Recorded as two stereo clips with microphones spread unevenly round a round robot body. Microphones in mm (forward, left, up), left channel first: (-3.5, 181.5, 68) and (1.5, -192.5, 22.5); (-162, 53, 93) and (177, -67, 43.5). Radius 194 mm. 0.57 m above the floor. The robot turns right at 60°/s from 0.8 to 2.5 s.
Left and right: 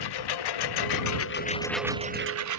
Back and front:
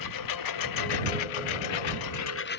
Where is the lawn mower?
120° left; by 2.6 s 135° right.